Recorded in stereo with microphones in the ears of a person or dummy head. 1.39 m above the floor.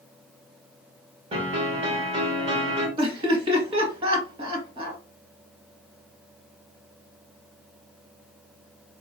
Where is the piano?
30° right (ahead or behind), 1.6 m.